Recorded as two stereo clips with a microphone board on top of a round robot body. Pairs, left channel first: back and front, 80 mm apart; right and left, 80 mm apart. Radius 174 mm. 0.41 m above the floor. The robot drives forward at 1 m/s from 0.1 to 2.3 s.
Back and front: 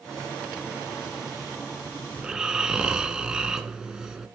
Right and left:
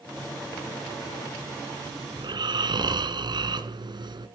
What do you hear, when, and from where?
2.2 s snoring: 80° left, 1.8 m; by 4.3 s 85° left, 1.8 m